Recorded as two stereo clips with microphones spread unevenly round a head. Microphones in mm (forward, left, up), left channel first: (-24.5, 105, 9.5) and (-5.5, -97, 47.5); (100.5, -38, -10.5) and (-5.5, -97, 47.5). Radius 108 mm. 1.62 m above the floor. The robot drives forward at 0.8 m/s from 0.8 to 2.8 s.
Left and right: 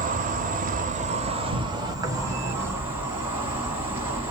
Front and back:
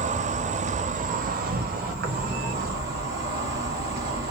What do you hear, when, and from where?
0.0 s an insect: 125° right, 0.9 m; by 4.3 s 165° right, 2 m